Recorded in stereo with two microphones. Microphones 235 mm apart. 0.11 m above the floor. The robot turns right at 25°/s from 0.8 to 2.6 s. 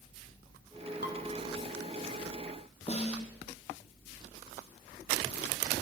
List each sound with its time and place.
1.0 s dishes clattering: 45° left (ahead or behind), 2 m
2.9 s a snare drum: 25° left (ahead or behind), 2 m